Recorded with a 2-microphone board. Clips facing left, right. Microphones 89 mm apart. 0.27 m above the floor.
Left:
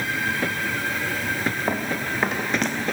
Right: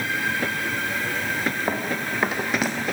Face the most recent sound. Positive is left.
turn(degrees=-5)  # may be behind; listen again after turning